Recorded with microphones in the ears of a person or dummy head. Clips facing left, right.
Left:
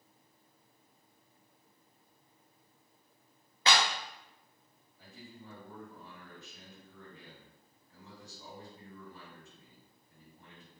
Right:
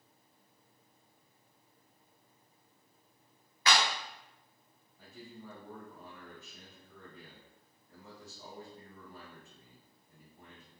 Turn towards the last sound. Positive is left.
turn(degrees=-50)  # may be behind; listen again after turning